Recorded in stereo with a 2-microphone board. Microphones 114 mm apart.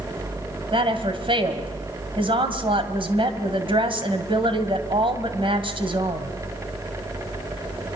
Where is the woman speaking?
50° right (ahead or behind), 2.5 m.